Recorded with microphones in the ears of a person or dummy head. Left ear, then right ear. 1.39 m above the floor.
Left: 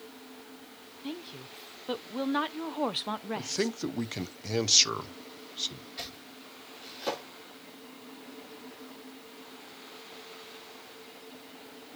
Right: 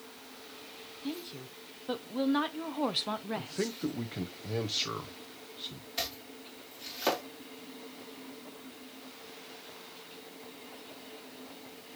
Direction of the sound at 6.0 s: 45° right (ahead or behind).